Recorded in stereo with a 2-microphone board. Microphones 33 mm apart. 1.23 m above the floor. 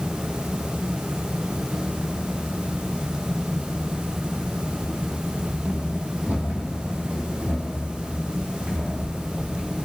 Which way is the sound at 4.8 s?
30° right (ahead or behind).